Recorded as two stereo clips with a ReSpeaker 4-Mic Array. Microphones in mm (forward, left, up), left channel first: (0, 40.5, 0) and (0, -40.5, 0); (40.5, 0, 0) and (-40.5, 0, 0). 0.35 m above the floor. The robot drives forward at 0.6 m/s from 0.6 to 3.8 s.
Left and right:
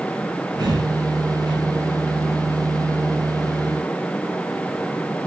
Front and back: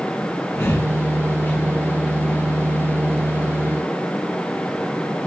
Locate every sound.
0.6 s breathing: 60° right, 5 m; by 1.6 s 65° right, 4.5 m